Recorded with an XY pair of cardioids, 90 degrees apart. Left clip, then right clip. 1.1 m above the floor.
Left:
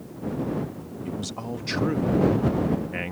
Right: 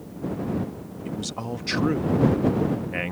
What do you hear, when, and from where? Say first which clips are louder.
1.1 s a man speaking: right 2 dB; 20° right